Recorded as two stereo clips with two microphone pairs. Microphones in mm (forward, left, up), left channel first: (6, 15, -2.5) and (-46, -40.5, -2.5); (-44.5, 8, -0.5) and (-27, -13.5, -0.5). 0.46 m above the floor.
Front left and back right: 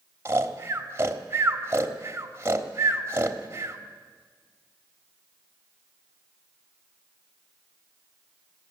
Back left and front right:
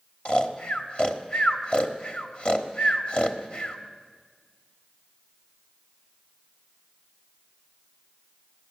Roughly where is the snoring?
Behind.